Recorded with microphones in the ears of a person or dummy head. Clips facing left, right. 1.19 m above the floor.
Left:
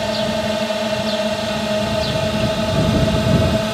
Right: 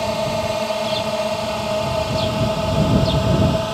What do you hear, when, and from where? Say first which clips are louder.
0.0 s a drone: left 1 dB; 5° left (ahead or behind); by 3.8 s 20° left (ahead or behind)